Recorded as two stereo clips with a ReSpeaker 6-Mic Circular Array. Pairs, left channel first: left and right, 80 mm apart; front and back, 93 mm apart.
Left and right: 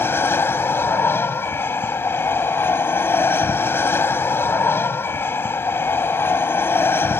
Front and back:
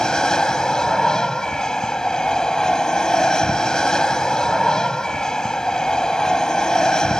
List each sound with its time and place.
0.0 s an aircraft: 75° left